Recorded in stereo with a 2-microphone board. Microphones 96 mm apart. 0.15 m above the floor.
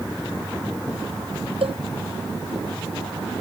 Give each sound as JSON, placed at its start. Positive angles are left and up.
{"t": 1.6, "sound": "a cowbell", "side_deg": -70}